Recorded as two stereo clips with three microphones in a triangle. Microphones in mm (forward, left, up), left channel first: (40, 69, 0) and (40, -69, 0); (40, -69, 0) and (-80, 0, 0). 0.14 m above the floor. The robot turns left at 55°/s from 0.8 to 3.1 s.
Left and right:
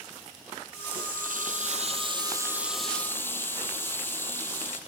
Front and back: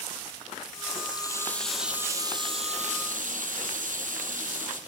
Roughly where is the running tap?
Right.